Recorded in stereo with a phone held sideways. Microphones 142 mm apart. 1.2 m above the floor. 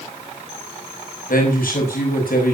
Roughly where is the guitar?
I don't hear a guitar.